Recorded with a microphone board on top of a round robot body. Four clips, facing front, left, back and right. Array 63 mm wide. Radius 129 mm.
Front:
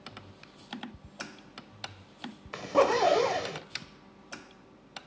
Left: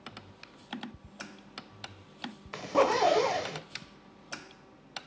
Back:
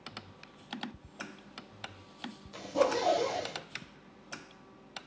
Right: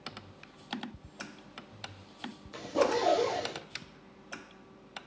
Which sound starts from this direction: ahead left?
A zipper, at 2.5 s.